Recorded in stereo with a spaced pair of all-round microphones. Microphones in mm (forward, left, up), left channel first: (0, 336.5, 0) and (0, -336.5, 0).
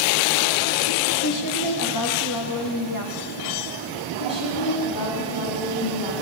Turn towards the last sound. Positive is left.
turn(degrees=30)  # may be behind; listen again after turning